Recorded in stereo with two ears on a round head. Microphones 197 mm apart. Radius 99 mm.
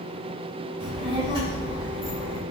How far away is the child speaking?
About 0.8 m.